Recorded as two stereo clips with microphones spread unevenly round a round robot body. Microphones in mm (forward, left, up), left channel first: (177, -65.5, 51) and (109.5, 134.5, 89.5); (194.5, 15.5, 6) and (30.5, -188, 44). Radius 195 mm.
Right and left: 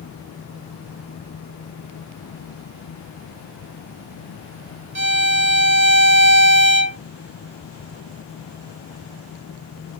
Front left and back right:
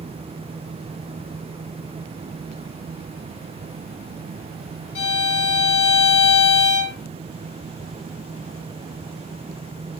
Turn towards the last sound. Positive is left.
turn(degrees=80)